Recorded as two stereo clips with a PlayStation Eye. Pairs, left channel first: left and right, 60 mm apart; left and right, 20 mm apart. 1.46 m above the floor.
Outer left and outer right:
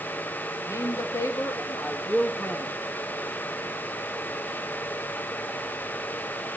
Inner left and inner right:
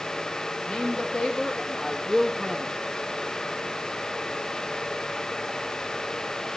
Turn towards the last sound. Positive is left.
turn(degrees=30)  # may be behind; listen again after turning